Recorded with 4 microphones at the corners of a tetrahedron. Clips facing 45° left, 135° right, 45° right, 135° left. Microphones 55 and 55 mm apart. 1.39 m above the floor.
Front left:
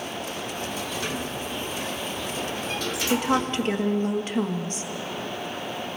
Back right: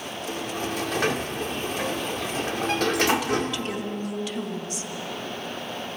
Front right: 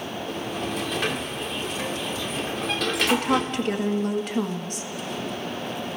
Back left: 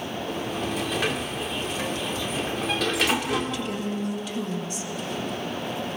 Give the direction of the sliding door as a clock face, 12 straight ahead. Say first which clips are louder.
Back right 2 dB, even; 5 o'clock.